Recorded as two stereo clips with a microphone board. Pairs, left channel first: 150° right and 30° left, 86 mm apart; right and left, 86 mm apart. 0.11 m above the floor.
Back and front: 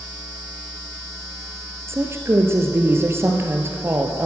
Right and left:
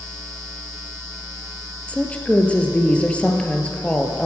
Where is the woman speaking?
20° right, 1.8 m.